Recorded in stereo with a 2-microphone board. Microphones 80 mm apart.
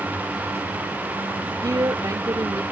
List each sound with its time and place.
1.6 s a woman speaking: 50° right (ahead or behind)